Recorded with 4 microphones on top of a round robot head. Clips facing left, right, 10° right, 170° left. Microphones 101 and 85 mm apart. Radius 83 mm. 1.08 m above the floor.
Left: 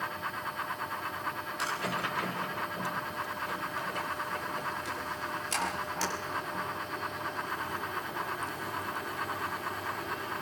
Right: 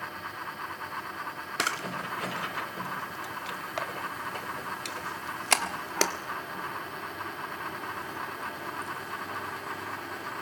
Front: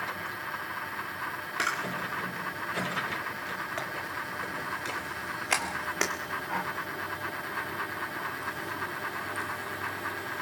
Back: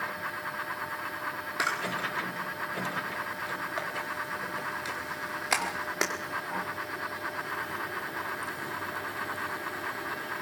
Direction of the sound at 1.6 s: 105° right.